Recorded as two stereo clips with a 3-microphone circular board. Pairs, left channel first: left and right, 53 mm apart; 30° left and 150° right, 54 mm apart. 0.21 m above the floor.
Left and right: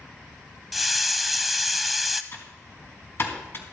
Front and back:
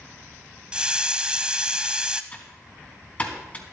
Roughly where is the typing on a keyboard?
Left.